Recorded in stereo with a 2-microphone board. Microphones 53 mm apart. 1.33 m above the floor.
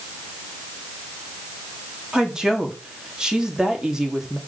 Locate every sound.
2.1 s a woman speaking: 10° right (ahead or behind), 2.5 m